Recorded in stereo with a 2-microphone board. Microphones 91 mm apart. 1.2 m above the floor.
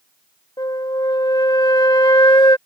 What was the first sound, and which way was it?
A flute, 55° left (ahead or behind).